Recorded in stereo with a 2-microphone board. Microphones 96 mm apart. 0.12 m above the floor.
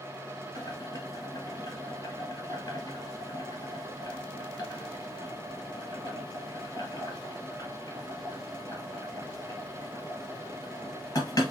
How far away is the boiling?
About 2 m.